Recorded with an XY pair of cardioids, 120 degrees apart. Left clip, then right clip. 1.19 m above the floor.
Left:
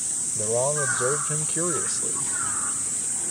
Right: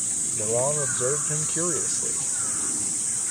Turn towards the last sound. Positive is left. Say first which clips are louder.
# left 1 dB
turn(degrees=5)